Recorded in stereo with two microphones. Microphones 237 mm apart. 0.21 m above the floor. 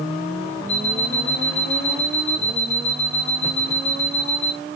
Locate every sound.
0.7 s an alarm clock: 30° left (ahead or behind), 3.5 m